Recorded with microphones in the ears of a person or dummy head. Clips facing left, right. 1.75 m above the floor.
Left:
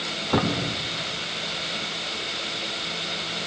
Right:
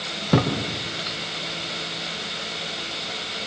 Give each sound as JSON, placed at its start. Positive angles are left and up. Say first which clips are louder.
{"t": 0.3, "sound": "a thud", "louder": "right 3 dB", "side_deg": -40, "distance_m": 3.0}